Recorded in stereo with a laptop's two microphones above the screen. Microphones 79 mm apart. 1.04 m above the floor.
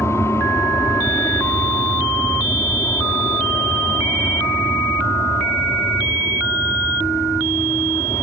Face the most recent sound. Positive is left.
turn(degrees=35)  # may be behind; listen again after turning